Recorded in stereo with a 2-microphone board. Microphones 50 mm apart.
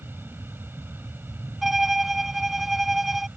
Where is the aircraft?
45° right (ahead or behind).